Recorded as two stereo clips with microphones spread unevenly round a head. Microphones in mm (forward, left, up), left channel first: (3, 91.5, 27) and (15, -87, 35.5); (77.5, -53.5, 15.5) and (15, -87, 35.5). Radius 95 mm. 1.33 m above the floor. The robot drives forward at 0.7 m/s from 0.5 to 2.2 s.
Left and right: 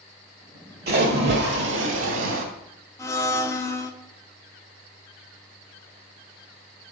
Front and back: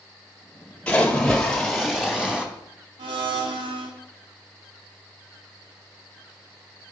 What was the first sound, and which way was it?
A splash, 50° right.